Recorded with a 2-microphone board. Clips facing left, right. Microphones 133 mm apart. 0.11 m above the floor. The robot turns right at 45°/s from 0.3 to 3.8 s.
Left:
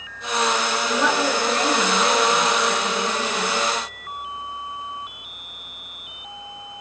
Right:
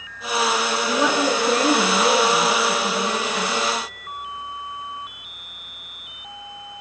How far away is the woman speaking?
About 1.3 m.